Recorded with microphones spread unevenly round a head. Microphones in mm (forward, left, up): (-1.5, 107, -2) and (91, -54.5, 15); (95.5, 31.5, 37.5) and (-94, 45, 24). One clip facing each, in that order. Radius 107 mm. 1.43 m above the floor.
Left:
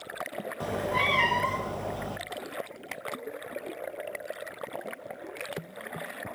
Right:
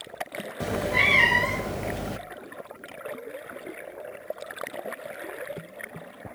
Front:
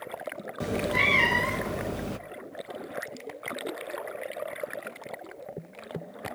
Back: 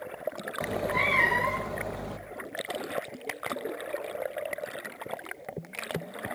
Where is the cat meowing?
20° right, 0.6 m.